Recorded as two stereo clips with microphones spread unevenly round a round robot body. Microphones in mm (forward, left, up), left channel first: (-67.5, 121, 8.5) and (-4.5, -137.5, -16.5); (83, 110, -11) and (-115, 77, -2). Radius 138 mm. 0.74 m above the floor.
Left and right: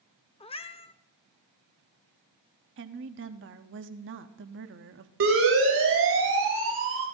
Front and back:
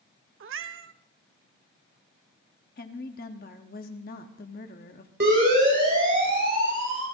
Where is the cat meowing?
170° left, 0.7 m.